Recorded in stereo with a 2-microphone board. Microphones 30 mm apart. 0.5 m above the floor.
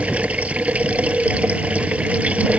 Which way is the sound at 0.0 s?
50° right (ahead or behind).